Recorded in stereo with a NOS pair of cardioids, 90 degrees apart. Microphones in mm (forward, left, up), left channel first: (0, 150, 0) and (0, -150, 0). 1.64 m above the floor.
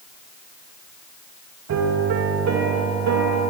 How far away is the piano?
About 3 m.